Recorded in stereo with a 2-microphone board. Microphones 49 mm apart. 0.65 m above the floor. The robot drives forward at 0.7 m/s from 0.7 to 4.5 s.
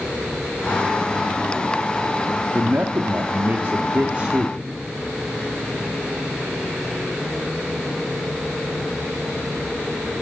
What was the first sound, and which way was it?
A man speaking, 45° right (ahead or behind).